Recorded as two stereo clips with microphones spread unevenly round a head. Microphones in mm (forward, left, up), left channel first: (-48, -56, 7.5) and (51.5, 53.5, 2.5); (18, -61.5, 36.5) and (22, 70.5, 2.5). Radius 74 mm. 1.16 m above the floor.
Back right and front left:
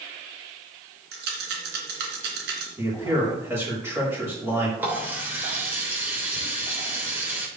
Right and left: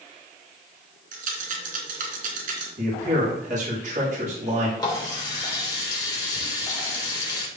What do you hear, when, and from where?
1.1 s a rattle: 60° left, 3 m
2.8 s a man speaking: 120° left, 4 m
4.8 s a running tap: 30° right, 3 m